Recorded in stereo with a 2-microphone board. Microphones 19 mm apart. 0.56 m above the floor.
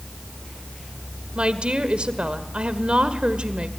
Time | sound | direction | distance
1.4 | a woman speaking | 70° right (ahead or behind) | 1.6 m